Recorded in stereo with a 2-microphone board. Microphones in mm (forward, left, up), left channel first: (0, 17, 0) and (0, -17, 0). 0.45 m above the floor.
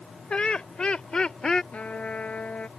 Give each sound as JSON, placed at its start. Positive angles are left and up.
{"t": 0.3, "sound": "laughter", "side_deg": 30}
{"t": 1.7, "sound": "a trumpet", "side_deg": 40}